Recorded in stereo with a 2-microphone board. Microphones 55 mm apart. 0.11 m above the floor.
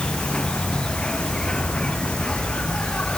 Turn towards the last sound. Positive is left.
turn(degrees=15)  # may be behind; listen again after turning